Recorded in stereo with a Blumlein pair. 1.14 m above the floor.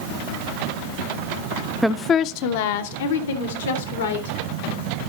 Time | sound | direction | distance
1.8 | a woman speaking | 5° right | 0.5 m